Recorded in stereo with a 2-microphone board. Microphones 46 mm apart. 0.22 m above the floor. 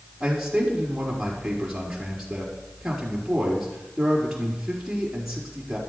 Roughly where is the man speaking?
Centre.